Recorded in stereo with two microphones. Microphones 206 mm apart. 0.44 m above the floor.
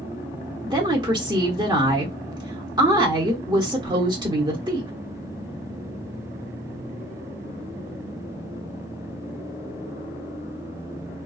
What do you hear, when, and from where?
0.6 s a woman speaking: 20° right (ahead or behind), 0.8 m